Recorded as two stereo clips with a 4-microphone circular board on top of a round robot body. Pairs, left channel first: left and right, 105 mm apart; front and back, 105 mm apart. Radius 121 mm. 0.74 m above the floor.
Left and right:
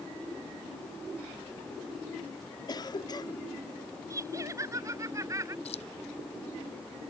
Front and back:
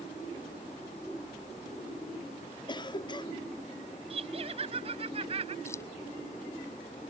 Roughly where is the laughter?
Behind right.